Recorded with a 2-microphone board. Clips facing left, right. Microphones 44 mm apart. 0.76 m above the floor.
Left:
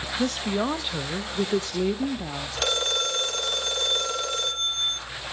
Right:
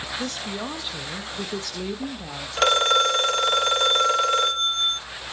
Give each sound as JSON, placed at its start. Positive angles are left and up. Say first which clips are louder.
{"t": 0.2, "sound": "a woman speaking", "louder": "left 9 dB", "side_deg": 20, "distance_m": 0.8}
{"t": 2.6, "sound": "a phone ringing", "louder": "right 8 dB", "side_deg": -35, "distance_m": 1.1}